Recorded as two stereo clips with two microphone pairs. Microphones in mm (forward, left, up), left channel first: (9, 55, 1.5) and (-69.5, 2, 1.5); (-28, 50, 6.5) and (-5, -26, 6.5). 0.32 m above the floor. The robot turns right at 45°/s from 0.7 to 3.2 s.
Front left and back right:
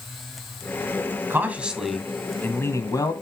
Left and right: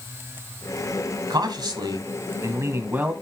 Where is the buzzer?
No buzzer in this recording.